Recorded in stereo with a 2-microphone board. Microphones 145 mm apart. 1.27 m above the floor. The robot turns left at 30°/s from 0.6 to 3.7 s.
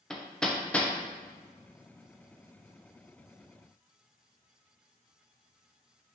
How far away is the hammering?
About 0.5 m.